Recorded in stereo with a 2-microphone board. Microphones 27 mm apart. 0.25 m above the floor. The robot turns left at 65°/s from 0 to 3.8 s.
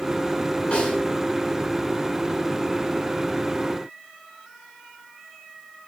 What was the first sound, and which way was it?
A snare drum, 50° left (ahead or behind).